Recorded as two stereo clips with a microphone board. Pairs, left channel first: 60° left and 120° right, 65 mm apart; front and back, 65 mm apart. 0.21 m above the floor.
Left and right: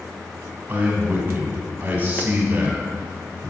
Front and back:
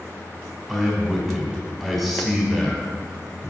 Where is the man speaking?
85° right, 1.3 m.